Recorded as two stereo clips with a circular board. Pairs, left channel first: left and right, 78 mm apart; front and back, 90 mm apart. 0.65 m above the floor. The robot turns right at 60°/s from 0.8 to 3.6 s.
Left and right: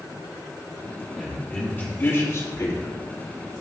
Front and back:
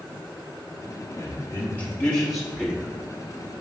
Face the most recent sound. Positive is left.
turn(degrees=165)